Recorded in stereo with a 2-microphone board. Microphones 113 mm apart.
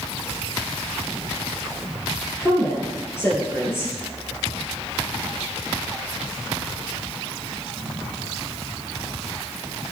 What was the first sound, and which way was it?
A woman speaking, 25° left (ahead or behind).